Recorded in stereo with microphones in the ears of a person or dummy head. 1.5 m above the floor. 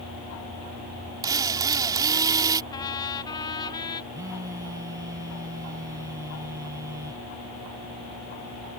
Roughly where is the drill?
Right.